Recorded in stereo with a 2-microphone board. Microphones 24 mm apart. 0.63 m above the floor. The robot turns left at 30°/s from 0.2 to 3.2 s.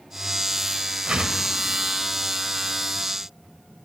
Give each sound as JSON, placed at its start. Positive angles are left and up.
{"t": 1.1, "sound": "a whoosh", "side_deg": -45, "distance_m": 0.6}